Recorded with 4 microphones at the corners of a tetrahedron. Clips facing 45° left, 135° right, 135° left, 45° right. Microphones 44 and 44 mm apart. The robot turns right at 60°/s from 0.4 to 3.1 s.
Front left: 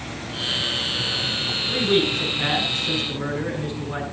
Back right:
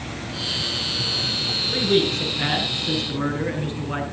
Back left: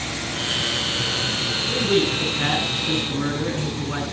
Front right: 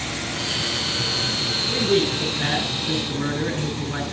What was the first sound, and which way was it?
A man speaking, 95° left.